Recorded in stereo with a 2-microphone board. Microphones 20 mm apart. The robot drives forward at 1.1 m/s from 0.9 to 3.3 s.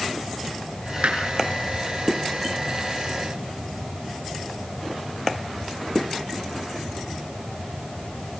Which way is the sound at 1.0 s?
70° right (ahead or behind).